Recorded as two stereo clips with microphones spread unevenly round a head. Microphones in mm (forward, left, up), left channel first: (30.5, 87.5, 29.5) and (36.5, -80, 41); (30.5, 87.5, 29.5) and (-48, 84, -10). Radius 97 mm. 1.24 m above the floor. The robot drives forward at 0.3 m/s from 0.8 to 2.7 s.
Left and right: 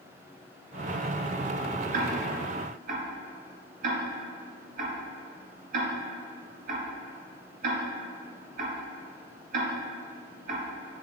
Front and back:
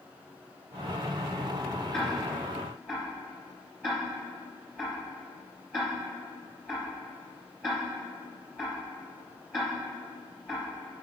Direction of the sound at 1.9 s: 70° right.